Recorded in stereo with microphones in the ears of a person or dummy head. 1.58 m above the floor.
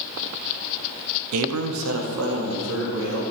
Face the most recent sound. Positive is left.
turn(degrees=-75)  # may be behind; listen again after turning